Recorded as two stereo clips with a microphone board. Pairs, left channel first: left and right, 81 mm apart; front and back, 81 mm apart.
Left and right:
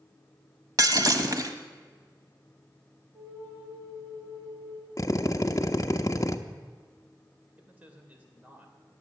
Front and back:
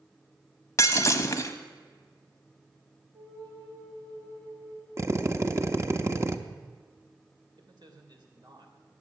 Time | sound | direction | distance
0.8 | breaking glass | 50° right | 1.1 m
3.1 | a flute | 135° right | 5 m
5.0 | a drill | 130° left | 0.8 m
7.6 | a man speaking | 160° right | 2.5 m